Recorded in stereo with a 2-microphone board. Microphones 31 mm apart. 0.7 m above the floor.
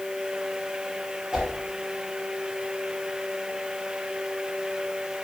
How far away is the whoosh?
About 4.5 m.